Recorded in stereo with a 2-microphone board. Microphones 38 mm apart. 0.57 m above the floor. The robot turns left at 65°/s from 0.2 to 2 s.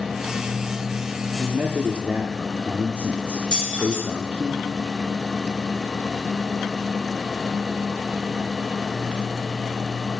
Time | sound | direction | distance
1.3 | a man speaking | 55° right | 1.0 m
3.5 | keys jangling | 20° left (ahead or behind) | 6.5 m